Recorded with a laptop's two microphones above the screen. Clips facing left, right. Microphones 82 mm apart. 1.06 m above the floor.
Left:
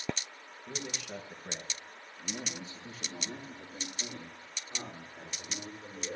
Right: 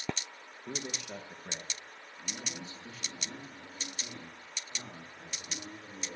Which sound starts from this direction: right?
A man speaking, at 0.7 s.